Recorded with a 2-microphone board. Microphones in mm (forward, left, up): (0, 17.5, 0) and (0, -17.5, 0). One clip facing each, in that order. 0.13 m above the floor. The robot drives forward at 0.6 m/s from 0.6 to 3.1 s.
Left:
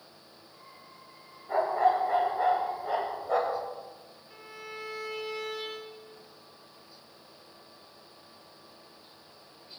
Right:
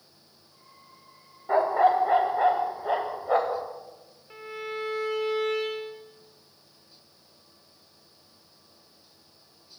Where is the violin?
45° right (ahead or behind), 3.5 m.